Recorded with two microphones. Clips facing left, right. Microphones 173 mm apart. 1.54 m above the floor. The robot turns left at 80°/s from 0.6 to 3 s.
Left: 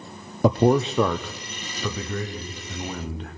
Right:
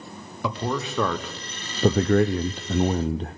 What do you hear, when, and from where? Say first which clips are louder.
0.4 s a man speaking: left 10 dB; 45° left, 0.5 m; by 3.4 s 145° right, 0.5 m